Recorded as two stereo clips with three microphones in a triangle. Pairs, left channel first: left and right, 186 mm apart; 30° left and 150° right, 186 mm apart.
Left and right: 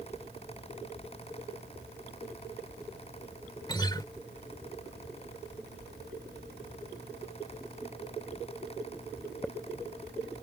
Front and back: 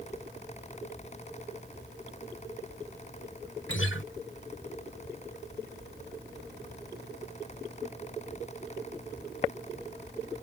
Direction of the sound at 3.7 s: 25° left.